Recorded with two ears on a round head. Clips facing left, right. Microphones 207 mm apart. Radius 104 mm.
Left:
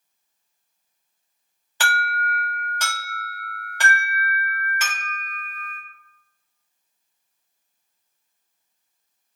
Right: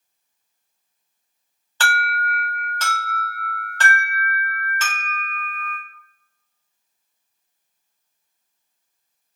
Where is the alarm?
10° left (ahead or behind), 1.4 m.